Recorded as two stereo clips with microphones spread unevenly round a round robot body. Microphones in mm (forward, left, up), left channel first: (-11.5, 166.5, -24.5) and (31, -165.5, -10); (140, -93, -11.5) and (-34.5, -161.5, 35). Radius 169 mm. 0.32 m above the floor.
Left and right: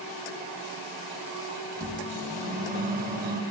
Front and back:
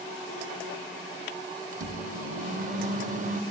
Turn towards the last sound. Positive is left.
turn(degrees=-125)